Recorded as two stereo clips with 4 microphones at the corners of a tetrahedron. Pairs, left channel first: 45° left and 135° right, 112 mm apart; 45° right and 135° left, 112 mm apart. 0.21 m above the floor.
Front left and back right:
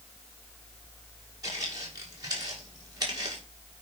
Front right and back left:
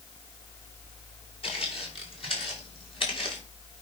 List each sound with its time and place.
1.4 s footsteps: 80° right, 8 m; by 3.4 s 85° right, 9.5 m